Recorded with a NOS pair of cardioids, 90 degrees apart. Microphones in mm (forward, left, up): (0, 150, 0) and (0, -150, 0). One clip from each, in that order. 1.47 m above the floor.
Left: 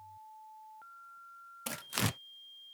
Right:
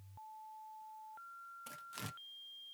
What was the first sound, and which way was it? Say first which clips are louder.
Tearing paper: left 14 dB; 65° left.